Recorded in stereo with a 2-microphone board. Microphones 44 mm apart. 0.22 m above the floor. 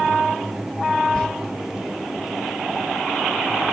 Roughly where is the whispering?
Centre.